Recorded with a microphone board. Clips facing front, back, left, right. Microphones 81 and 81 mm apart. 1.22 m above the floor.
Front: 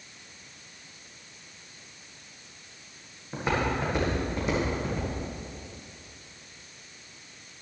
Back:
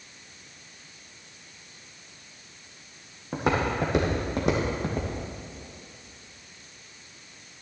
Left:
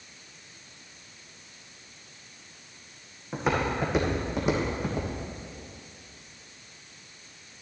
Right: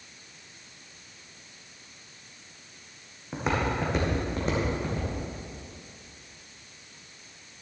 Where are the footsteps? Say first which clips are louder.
Back 2 dB, left 1 dB; straight behind, 3 m; by 5.1 s 160° left, 2.5 m.